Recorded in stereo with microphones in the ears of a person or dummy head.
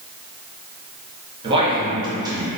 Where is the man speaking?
35° right (ahead or behind), 1.3 m; by 2.5 s 25° right (ahead or behind), 1.8 m.